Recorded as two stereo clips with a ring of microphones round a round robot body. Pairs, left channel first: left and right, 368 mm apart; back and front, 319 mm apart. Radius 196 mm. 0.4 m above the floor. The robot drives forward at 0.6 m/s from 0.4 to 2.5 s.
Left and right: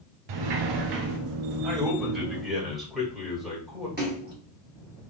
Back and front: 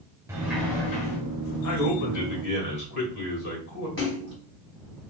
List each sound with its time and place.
0.3 s a sliding door: 80° right, 0.7 m; by 1.2 s 120° right, 0.8 m
1.6 s a man speaking: straight behind, 1.6 m
4.0 s a splash: 145° right, 1.7 m